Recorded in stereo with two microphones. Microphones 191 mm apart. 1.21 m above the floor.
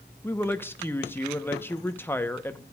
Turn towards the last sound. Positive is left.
turn(degrees=10)  # may be behind; listen again after turning